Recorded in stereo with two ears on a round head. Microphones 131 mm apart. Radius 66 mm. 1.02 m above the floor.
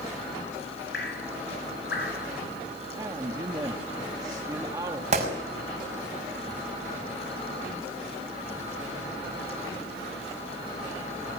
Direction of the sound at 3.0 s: 25° right (ahead or behind).